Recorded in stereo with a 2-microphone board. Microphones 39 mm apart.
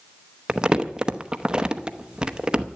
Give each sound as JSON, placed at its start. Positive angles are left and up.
{"t": 0.5, "sound": "crumpling", "side_deg": -20, "distance_m": 0.8}